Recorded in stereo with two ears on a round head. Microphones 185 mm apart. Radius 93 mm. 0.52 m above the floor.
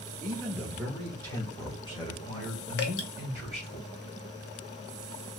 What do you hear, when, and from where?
0.2 s a man speaking: 20° right (ahead or behind), 0.7 m; by 3.8 s 35° left (ahead or behind), 1.9 m
2.8 s dripping: 60° left (ahead or behind), 0.8 m